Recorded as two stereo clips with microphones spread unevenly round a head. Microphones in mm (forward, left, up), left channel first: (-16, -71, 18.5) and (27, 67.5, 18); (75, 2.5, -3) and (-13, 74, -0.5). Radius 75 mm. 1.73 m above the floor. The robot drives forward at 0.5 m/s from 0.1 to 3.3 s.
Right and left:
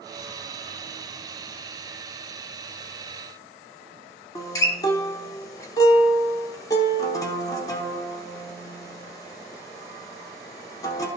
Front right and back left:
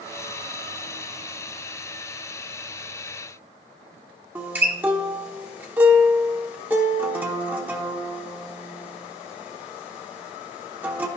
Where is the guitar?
160° right, 1.0 m.